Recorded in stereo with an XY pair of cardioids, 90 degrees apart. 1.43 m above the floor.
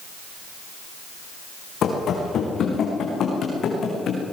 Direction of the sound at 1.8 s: 70° left.